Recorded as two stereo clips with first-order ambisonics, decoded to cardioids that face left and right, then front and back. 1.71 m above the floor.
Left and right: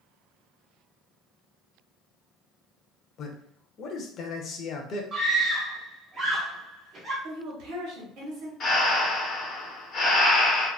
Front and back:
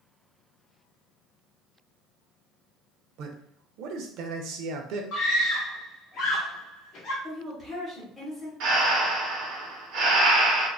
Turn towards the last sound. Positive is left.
turn(degrees=150)